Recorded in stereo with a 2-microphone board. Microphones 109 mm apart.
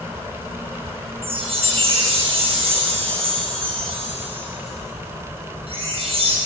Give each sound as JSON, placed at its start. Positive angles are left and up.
{"t": 1.2, "sound": "a chime", "side_deg": -60, "distance_m": 2.0}